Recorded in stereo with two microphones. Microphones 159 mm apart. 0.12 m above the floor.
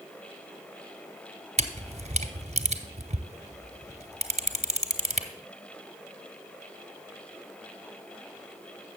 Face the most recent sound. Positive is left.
turn(degrees=-50)  # may be behind; listen again after turning